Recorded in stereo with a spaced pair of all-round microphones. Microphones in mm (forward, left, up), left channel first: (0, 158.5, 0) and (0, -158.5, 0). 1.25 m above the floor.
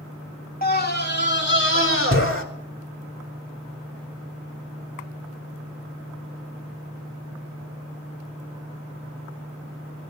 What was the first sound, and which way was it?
A scream, 30° left (ahead or behind).